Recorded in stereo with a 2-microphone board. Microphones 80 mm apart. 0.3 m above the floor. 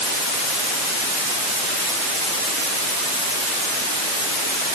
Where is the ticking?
I don't hear ticking.